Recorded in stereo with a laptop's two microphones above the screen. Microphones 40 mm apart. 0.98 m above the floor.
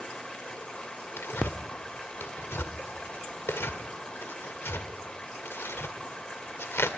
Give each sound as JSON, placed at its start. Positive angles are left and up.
{"t": 0.0, "sound": "running water", "side_deg": 25, "distance_m": 2.5}
{"t": 1.2, "sound": "tearing paper", "side_deg": 85, "distance_m": 1.8}